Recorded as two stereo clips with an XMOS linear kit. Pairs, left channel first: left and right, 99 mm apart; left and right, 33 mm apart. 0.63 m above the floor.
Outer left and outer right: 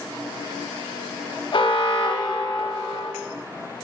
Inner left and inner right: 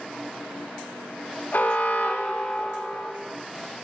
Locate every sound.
1.5 s an alarm: 60° left (ahead or behind), 1.0 m